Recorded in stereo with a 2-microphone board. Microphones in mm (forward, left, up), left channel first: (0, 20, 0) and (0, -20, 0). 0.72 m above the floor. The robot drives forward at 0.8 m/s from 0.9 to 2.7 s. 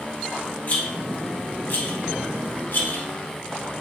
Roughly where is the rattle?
Left.